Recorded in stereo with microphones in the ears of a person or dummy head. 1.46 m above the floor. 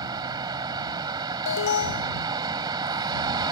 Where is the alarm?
70° left (ahead or behind).